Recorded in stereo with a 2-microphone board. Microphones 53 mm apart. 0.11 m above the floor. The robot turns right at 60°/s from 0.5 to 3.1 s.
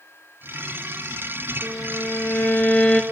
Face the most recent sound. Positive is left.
turn(degrees=165)